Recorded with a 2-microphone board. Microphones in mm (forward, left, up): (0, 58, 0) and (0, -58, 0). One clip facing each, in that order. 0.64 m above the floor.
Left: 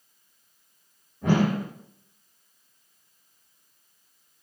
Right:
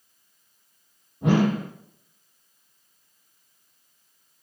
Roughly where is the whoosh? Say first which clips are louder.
Right 2 dB; right.